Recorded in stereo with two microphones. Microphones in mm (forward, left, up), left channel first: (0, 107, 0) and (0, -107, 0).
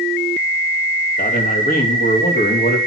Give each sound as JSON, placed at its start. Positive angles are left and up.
{"t": 1.2, "sound": "a man speaking", "side_deg": 40, "distance_m": 3.0}